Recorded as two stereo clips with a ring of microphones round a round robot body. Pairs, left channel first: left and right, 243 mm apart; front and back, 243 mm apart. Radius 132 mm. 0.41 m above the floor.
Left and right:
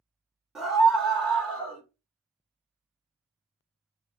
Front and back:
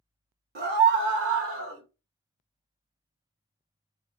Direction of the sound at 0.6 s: Straight behind.